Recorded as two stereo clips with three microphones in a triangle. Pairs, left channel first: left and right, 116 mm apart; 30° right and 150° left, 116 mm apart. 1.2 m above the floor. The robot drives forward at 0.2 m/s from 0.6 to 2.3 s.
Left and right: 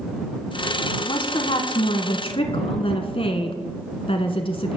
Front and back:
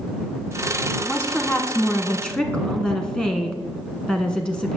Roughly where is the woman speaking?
Ahead left.